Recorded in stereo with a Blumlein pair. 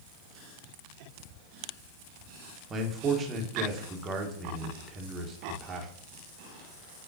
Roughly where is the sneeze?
No sneeze in this recording.